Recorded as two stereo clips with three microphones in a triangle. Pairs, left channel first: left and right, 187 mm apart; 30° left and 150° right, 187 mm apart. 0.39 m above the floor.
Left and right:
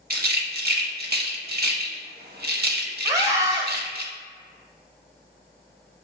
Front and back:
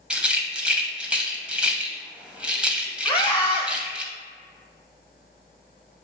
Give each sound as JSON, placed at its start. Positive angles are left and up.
{"t": 0.1, "sound": "a rattle", "azimuth_deg": -65, "distance_m": 0.6}
{"t": 3.0, "sound": "a scream", "azimuth_deg": -20, "distance_m": 1.2}